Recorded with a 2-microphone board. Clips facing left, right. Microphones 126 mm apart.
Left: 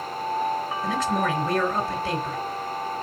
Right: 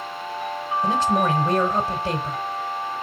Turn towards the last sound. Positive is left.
turn(degrees=-25)  # may be behind; listen again after turning